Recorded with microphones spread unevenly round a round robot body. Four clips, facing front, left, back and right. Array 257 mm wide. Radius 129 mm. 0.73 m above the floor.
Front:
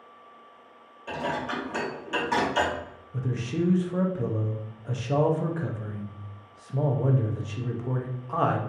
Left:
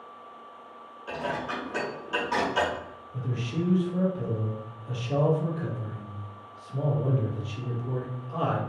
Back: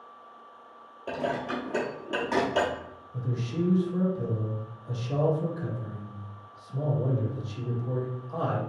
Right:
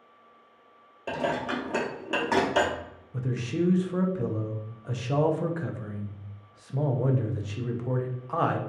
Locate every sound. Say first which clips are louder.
1.1 s dishes clattering: right 3 dB, even; 125° right, 0.9 m
3.1 s a man speaking: right 3 dB, front 2 dB; 40° right, 0.7 m